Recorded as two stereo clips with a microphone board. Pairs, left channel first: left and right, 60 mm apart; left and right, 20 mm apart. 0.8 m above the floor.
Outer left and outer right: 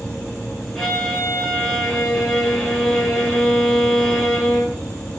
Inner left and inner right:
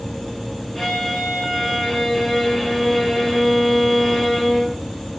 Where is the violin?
5° left (ahead or behind), 6.5 m.